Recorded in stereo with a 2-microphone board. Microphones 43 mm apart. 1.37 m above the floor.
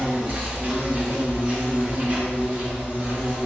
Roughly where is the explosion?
I don't hear an explosion.